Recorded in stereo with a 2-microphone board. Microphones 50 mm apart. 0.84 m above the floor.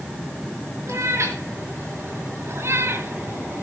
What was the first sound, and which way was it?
A cat meowing, 85° right.